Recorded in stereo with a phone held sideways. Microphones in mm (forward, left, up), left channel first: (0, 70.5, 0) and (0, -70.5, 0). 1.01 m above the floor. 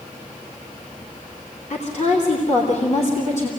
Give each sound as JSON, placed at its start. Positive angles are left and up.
{"t": 1.7, "sound": "a woman speaking", "side_deg": 55, "distance_m": 3.0}